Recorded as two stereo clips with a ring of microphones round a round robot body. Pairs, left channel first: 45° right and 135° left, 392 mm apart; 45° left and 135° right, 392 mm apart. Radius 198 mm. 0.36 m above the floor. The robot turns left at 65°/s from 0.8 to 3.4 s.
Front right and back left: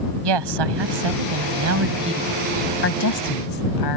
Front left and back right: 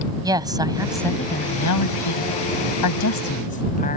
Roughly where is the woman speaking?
Behind left.